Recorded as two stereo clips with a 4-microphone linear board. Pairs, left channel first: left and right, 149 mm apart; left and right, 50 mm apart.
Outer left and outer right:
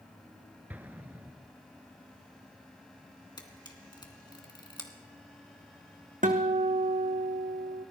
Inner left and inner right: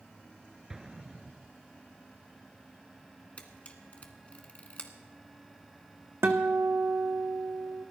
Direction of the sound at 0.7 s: 10° right (ahead or behind).